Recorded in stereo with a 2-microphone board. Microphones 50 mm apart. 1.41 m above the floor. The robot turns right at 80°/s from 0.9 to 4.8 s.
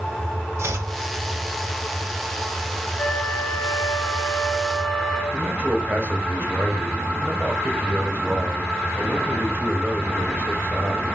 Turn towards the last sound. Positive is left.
turn(degrees=-40)  # may be behind; listen again after turning